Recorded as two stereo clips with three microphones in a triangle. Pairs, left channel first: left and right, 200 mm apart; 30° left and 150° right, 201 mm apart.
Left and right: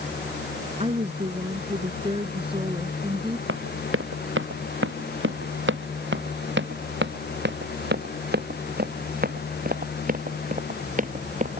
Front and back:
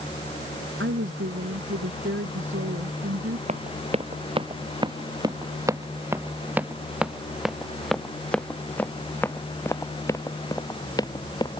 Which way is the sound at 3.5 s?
95° right.